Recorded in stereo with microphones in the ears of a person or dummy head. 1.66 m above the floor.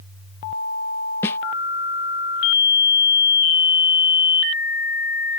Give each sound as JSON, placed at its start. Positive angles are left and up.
{"t": 1.2, "sound": "a snare drum", "side_deg": 5}